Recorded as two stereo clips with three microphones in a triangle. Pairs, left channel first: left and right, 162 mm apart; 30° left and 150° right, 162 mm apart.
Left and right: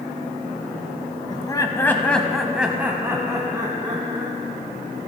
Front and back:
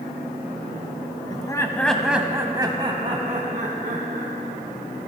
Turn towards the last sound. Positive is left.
turn(degrees=-150)